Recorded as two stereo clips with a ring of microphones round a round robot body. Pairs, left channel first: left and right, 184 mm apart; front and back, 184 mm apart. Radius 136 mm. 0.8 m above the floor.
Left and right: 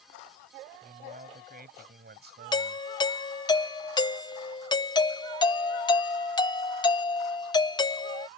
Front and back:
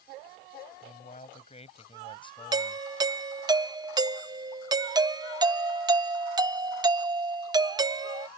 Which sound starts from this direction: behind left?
A doorbell, at 2.5 s.